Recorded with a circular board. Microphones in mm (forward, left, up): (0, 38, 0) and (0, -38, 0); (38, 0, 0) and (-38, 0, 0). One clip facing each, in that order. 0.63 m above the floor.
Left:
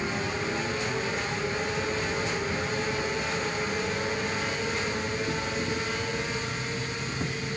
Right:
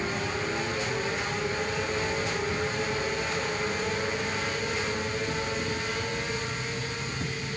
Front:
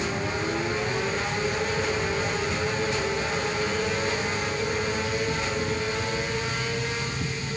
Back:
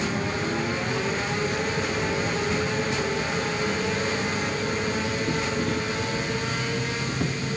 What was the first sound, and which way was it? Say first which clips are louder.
An insect: even, back 1 dB; 165° left.